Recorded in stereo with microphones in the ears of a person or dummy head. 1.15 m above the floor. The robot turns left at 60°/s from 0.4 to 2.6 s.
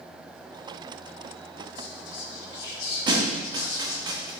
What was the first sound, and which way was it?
Whispering, 80° left.